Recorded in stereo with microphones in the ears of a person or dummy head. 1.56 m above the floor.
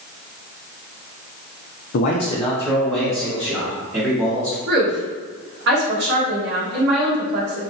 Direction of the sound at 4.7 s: 75° right (ahead or behind).